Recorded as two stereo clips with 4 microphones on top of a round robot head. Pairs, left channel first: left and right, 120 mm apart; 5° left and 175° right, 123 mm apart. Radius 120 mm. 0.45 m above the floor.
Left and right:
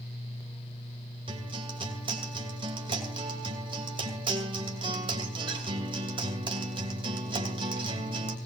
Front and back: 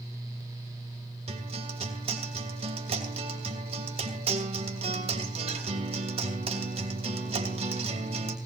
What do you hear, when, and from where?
1.3 s a guitar: 135° right, 2.5 m